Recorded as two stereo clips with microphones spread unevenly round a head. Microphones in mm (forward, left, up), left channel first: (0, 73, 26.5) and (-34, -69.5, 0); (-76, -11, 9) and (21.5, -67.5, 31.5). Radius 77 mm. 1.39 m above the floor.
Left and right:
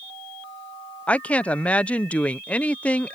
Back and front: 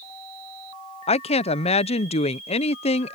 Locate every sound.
1.1 s a woman speaking: 160° left